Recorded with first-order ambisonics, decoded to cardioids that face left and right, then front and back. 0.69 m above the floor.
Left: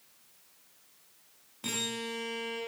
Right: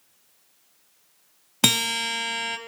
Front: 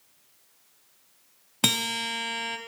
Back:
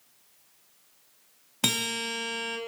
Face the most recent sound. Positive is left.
turn(degrees=-80)